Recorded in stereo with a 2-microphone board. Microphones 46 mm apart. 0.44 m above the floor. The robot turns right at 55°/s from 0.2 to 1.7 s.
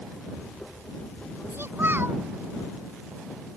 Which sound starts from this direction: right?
A child speaking, at 1.5 s.